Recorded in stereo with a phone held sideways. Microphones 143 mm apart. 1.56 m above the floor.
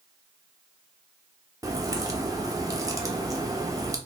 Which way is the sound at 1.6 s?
25° right (ahead or behind).